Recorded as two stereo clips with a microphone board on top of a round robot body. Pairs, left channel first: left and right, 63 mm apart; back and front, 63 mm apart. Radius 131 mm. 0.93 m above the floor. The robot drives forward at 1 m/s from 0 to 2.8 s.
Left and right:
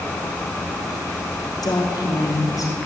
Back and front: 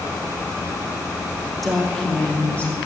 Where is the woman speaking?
90° left, 3 m; by 2.8 s 115° left, 3 m.